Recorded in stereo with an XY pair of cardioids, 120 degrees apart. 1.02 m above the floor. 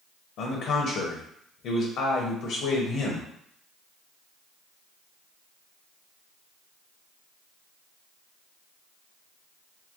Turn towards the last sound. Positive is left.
turn(degrees=70)